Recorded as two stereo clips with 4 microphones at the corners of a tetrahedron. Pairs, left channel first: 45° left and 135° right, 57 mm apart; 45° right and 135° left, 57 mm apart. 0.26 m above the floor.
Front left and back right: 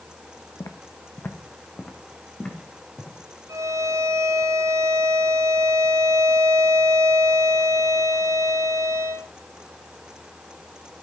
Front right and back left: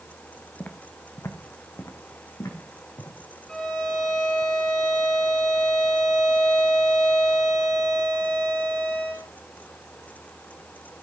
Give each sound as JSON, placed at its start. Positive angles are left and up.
{"t": 0.6, "sound": "footsteps", "azimuth_deg": 15, "distance_m": 1.0}
{"t": 3.5, "sound": "a violin", "azimuth_deg": -115, "distance_m": 4.5}